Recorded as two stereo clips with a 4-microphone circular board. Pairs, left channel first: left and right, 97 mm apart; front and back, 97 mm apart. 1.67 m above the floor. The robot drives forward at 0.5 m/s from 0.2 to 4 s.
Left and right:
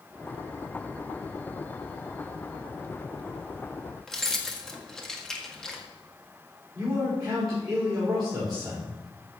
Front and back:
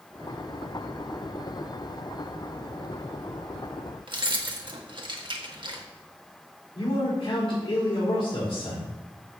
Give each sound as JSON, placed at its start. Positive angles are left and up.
{"t": 4.1, "sound": "keys jangling", "azimuth_deg": 175, "distance_m": 1.5}
{"t": 6.8, "sound": "a man speaking", "azimuth_deg": -40, "distance_m": 5.5}